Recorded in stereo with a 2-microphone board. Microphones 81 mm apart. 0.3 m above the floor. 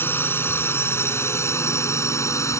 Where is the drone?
30° left (ahead or behind); by 2.6 s 40° left (ahead or behind).